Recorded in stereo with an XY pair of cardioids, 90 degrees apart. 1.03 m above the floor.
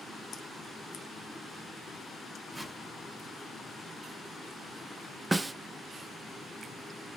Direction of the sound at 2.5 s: 20° right.